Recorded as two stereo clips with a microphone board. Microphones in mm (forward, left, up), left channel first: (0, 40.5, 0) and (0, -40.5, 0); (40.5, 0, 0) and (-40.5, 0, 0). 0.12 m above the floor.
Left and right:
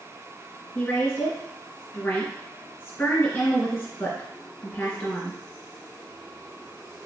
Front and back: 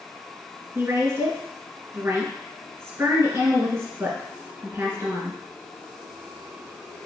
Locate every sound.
0.8 s a woman speaking: 150° left, 1.9 m